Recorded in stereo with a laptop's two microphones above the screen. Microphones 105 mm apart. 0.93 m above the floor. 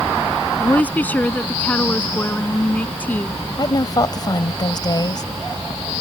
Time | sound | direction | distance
0.6 | a woman speaking | 15° left (ahead or behind) | ?
3.6 | a woman speaking | 35° left (ahead or behind) | ?